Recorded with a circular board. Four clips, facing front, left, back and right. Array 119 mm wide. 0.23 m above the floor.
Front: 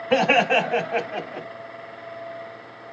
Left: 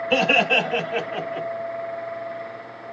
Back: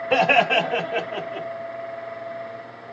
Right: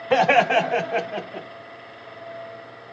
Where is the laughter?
85° right, 1.9 m; by 1.5 s straight ahead, 1.6 m.